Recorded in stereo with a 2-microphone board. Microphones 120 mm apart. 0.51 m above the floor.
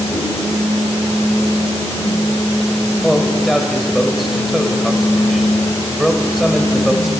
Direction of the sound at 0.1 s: 25° right (ahead or behind).